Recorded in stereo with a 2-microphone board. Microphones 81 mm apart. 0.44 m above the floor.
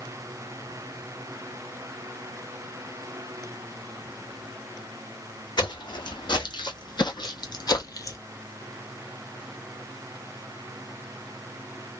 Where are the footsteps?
70° left (ahead or behind), 1.6 m; by 8.2 s 45° left (ahead or behind), 0.7 m.